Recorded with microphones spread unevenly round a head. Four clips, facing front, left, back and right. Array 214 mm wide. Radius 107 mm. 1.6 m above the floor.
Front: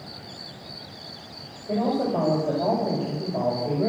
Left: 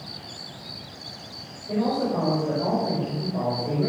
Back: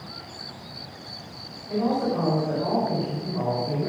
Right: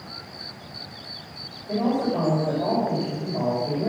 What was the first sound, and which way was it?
A man speaking, straight ahead.